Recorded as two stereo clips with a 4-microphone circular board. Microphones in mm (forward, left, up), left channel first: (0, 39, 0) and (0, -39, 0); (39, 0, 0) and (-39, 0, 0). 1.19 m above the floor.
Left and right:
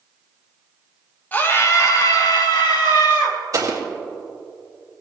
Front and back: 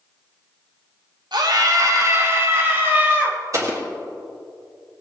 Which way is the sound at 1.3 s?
155° left.